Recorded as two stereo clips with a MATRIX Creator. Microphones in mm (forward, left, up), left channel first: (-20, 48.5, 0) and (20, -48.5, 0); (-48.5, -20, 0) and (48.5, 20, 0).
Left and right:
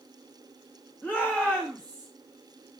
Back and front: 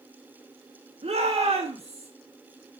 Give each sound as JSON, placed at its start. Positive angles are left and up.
{"t": 1.0, "sound": "a shout", "azimuth_deg": 35, "distance_m": 2.0}